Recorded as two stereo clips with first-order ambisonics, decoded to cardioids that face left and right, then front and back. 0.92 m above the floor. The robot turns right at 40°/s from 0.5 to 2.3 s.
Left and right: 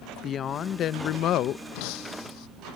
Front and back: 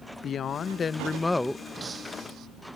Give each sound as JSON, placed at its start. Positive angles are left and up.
{"t": 0.2, "sound": "a woman speaking", "azimuth_deg": 45}
{"t": 1.8, "sound": "breaking glass", "azimuth_deg": 100}